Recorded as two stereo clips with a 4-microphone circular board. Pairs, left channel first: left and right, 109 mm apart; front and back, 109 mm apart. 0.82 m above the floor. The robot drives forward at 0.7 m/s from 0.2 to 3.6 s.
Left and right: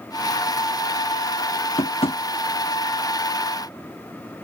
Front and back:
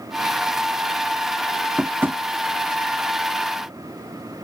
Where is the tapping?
95° left; by 2.2 s 115° left.